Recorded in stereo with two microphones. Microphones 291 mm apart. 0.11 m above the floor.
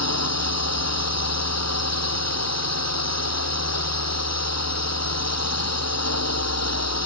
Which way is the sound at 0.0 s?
60° left (ahead or behind).